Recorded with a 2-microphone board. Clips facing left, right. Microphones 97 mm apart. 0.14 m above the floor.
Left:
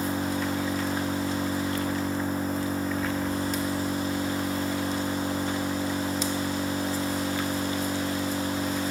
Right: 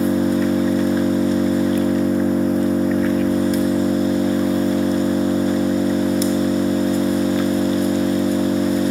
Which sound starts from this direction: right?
An engine running, at 0.0 s.